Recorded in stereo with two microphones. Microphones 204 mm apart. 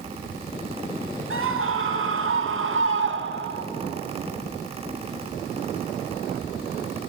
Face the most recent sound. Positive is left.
turn(degrees=-60)  # may be behind; listen again after turning